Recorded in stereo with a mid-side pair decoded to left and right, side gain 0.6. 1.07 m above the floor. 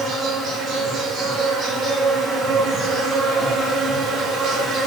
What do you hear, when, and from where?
0.0 s an insect: 45° right, 1.8 m